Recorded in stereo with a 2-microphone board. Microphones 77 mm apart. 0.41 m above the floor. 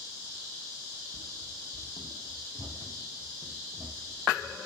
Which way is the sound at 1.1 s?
15° right (ahead or behind).